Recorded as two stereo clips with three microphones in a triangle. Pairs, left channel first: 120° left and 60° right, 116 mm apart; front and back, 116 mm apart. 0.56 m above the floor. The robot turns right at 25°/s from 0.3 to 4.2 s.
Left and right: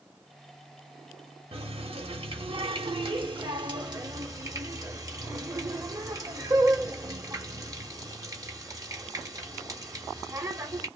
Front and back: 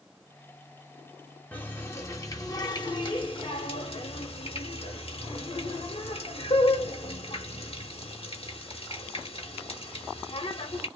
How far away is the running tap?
About 0.9 m.